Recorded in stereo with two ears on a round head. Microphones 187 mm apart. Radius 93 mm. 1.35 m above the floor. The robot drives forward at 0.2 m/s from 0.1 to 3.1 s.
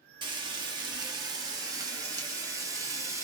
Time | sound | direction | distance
0.2 | frying | 20° right (ahead or behind) | 0.8 m